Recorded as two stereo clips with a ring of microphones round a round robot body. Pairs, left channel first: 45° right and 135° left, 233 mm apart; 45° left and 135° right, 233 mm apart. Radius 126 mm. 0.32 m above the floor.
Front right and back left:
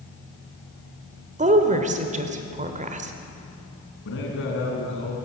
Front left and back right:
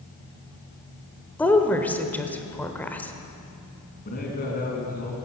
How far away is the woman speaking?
About 1.1 m.